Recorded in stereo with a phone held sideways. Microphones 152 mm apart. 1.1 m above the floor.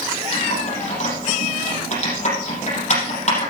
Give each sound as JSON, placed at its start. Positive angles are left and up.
{"t": 0.3, "sound": "typing on a keyboard", "side_deg": 50, "distance_m": 6.0}